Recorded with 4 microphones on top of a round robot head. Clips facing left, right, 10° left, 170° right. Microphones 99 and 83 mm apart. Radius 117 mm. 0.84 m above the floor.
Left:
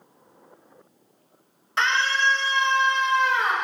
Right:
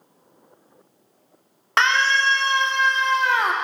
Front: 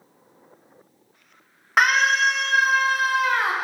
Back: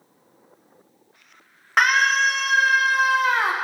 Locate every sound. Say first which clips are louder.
1.8 s a scream: right 4 dB, even; 75° right, 2.0 m; by 3.5 s 105° right, 1.4 m